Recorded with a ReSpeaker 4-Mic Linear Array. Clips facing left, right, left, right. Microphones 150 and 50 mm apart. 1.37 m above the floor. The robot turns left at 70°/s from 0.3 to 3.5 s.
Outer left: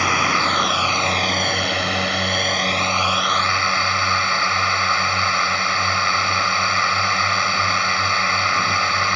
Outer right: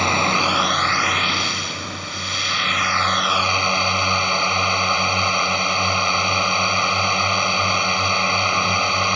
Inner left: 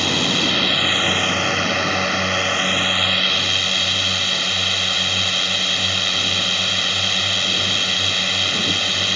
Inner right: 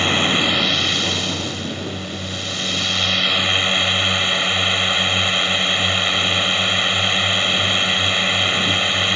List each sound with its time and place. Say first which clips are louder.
0.0 s a drone: outer right 1 dB, inner right 2 dB; 155° right; by 9.2 s 20° right